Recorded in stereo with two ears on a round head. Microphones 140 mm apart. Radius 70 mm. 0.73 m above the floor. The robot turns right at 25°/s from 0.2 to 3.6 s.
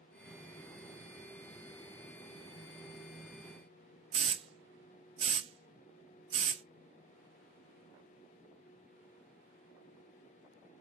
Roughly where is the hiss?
Right.